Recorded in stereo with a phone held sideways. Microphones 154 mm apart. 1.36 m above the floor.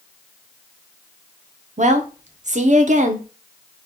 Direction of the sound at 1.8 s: 50° right (ahead or behind).